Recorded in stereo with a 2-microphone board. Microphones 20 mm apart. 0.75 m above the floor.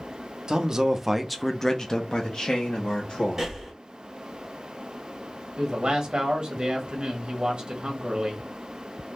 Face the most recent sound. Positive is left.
turn(degrees=-50)  # may be behind; listen again after turning